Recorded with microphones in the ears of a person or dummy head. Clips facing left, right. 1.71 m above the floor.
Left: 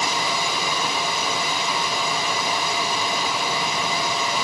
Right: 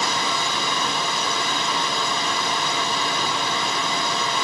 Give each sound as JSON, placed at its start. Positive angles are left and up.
{"t": 0.0, "sound": "a machine running", "side_deg": 10, "distance_m": 3.0}